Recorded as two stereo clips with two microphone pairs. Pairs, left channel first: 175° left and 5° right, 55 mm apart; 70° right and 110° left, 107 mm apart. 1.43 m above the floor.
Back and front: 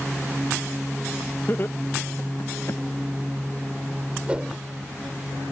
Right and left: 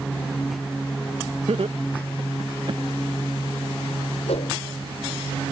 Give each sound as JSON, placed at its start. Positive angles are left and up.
{"t": 1.5, "sound": "laughter", "azimuth_deg": 130}
{"t": 4.3, "sound": "a whoosh", "azimuth_deg": -75}